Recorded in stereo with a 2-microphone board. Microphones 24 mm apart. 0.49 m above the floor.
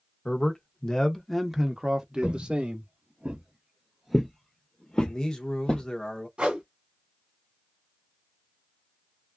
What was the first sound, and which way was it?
A man speaking, 45° left (ahead or behind).